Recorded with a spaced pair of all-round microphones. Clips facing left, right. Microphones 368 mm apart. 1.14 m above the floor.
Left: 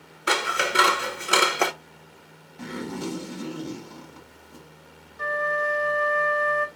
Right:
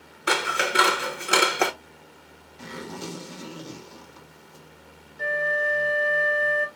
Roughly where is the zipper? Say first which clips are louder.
Left 5 dB; left.